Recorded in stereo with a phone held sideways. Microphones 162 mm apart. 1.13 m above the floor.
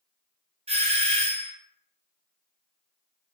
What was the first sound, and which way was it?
A doorbell, 35° right (ahead or behind).